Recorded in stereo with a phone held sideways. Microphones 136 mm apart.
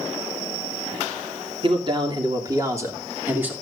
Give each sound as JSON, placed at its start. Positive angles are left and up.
{"t": 1.6, "sound": "a man speaking", "side_deg": -40, "distance_m": 2.5}